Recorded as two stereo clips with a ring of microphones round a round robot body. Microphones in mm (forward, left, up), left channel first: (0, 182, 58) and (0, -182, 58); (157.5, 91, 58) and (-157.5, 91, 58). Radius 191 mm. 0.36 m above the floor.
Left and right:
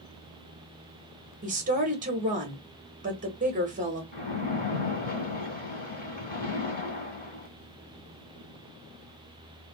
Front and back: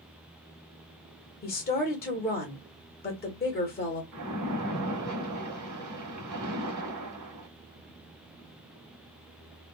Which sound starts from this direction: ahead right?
A woman speaking, at 1.4 s.